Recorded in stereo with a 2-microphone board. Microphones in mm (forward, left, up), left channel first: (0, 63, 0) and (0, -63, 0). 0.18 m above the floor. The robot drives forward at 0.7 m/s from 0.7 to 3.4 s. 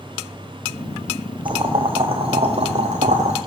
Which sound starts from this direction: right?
Boiling, at 1.4 s.